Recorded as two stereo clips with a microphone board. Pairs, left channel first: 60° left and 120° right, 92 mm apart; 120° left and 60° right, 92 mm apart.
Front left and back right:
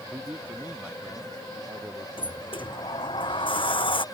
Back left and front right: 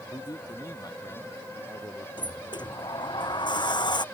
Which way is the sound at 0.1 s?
165° left.